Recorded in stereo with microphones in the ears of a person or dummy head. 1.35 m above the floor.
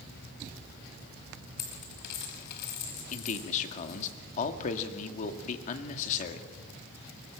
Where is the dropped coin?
60° left (ahead or behind), 4 m.